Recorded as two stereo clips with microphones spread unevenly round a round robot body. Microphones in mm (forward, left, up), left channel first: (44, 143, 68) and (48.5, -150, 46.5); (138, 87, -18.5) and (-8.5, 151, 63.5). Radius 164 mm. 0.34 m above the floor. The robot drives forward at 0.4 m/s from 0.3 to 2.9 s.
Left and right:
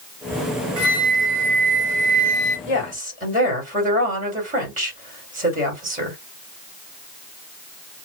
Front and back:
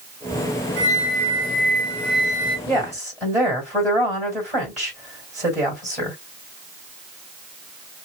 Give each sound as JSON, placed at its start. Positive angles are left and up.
{"t": 0.8, "sound": "a flute", "azimuth_deg": -85, "distance_m": 2.0}
{"t": 2.7, "sound": "a woman speaking", "azimuth_deg": -130, "distance_m": 1.8}